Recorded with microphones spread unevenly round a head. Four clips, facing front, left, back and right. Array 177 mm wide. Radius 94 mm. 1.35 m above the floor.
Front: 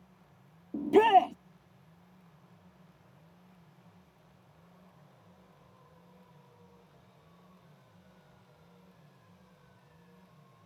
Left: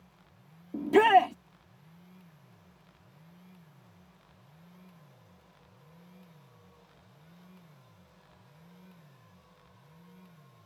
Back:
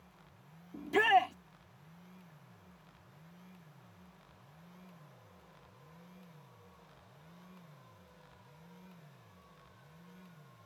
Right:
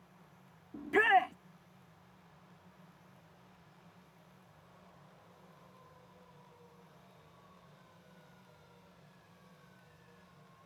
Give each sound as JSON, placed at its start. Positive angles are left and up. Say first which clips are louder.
{"t": 0.7, "sound": "a shout", "louder": "left 7 dB, front 6 dB", "azimuth_deg": 45}